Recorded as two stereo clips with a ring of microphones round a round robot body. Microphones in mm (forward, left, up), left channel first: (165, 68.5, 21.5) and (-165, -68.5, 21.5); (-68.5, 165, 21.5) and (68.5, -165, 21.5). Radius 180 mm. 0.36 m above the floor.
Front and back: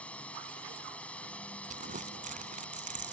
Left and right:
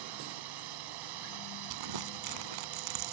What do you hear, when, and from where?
0.0 s a drone: 65° right
1.7 s crumpling: 90° right